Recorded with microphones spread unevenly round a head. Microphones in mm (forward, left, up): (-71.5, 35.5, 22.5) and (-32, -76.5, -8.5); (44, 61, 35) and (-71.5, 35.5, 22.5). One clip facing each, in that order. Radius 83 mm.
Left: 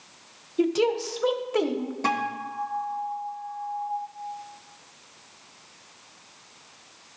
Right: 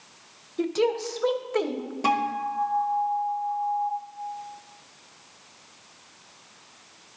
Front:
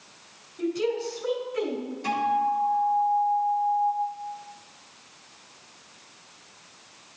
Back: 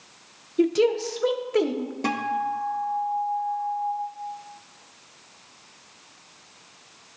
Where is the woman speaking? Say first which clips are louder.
Left 2 dB, back 6 dB; 170° right, 0.9 m.